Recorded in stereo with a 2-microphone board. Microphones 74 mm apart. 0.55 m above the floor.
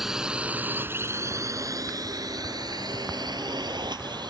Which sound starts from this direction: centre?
A drone, at 0.0 s.